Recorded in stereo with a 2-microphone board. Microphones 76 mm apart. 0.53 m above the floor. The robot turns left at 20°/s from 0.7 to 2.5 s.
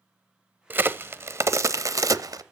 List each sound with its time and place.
0.7 s a crack: 25° right (ahead or behind), 0.5 m; by 2.4 s 60° right (ahead or behind), 0.5 m